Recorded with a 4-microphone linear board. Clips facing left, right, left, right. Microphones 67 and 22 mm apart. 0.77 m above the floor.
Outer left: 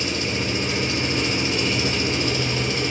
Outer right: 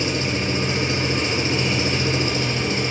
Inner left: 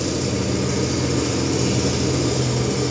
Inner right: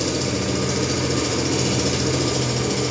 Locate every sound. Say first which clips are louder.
0.0 s an engine running: outer right 2 dB, even; 35° right (ahead or behind), 1.0 m